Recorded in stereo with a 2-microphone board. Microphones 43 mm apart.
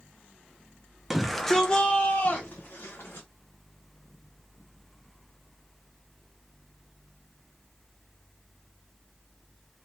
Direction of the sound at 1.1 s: 5° right (ahead or behind).